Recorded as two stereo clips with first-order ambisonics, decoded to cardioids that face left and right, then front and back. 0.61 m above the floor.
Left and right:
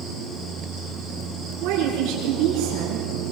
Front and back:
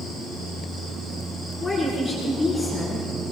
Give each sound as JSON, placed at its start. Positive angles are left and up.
{"t": 1.6, "sound": "a woman speaking", "azimuth_deg": -75, "distance_m": 10.0}